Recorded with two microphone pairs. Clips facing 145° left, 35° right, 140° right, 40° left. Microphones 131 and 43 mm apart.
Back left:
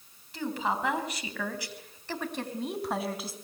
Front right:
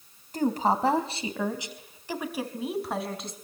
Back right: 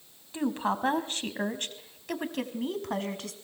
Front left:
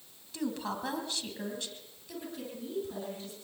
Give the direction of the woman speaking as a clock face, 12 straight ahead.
3 o'clock.